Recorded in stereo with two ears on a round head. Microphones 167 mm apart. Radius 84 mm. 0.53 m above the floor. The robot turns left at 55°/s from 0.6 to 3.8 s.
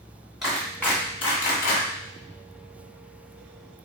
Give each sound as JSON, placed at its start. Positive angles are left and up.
{"t": 0.4, "sound": "a clap", "side_deg": 0, "distance_m": 2.5}